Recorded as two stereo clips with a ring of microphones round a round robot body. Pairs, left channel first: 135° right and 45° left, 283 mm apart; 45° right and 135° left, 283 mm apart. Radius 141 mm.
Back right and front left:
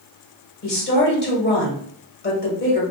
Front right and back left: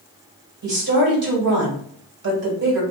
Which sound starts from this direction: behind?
A woman speaking, at 0.6 s.